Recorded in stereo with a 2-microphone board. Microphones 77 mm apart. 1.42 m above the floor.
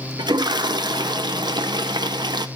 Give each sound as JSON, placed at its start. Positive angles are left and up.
{"t": 0.2, "sound": "a toilet flushing", "side_deg": -70, "distance_m": 0.8}